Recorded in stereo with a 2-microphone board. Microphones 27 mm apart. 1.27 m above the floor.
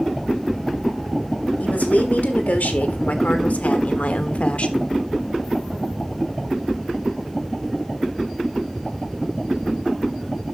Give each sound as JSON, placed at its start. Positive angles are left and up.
{"t": 1.6, "sound": "a woman speaking", "side_deg": 85, "distance_m": 2.5}